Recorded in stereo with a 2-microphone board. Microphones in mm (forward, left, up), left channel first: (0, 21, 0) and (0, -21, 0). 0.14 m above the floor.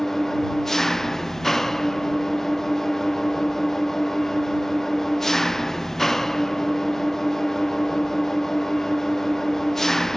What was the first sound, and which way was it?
An engine running, 5° left (ahead or behind).